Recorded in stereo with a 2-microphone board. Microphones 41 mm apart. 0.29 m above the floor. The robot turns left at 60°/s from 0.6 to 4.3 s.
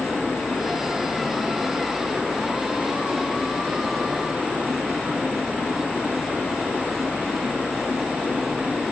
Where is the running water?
80° left, 4 m; by 8.9 s 140° right, 4 m.